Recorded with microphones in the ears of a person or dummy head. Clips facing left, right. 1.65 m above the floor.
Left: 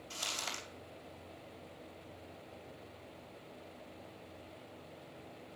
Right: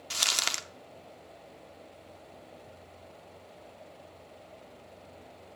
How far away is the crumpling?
About 0.9 m.